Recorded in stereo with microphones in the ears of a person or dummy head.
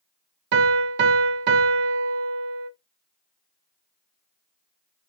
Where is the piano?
60° right (ahead or behind), 0.6 m.